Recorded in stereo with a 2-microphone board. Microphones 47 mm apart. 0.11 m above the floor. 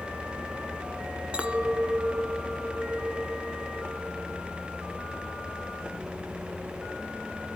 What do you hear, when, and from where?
1.3 s a clink: 25° right (ahead or behind), 0.9 m